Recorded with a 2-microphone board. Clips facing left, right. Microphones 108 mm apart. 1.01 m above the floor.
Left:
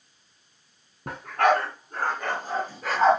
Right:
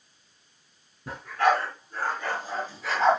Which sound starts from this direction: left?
A dog barking, at 1.1 s.